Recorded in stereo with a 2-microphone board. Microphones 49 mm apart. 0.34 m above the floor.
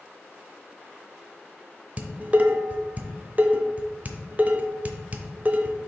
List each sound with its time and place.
2.0 s dishes clattering: 30° right (ahead or behind), 0.7 m